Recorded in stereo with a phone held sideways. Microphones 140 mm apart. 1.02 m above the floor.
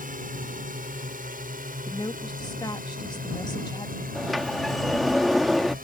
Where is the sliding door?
Centre (ahead or behind).